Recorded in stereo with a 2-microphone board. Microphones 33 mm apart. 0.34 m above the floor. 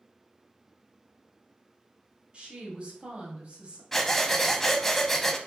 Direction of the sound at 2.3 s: 35° right (ahead or behind).